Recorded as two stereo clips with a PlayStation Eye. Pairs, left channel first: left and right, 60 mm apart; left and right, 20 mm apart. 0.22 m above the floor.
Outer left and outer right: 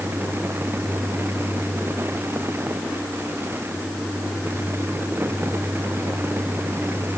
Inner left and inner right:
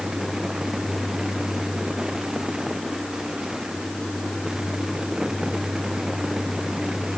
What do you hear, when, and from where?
Only background noise.